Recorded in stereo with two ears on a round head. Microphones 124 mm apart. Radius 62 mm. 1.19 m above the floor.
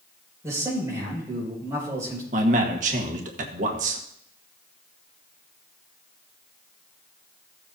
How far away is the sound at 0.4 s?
About 6 m.